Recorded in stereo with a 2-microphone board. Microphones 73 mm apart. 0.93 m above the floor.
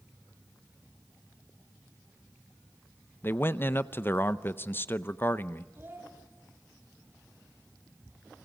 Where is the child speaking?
30° right (ahead or behind), 4.5 m.